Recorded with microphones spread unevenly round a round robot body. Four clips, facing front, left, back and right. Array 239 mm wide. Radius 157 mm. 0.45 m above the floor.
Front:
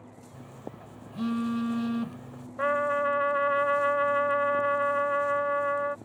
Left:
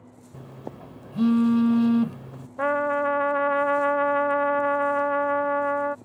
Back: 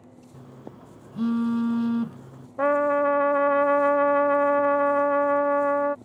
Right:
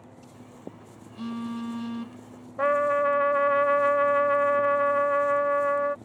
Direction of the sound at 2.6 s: 170° left.